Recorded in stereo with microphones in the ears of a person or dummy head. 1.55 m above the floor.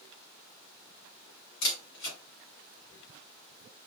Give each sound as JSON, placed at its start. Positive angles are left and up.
{"t": 1.6, "sound": "a camera shutter", "side_deg": 65, "distance_m": 2.5}